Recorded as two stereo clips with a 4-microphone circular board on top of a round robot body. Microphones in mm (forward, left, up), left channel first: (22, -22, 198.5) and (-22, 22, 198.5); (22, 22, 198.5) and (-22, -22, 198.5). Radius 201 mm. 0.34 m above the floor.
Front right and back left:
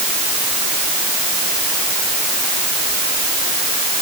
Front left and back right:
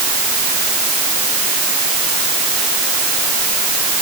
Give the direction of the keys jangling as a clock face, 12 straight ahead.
I don't hear keys jangling.